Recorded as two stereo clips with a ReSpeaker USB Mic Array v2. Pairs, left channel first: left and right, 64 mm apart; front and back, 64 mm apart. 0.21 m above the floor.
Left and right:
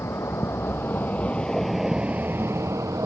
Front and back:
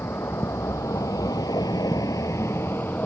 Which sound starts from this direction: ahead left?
A vehicle, at 0.0 s.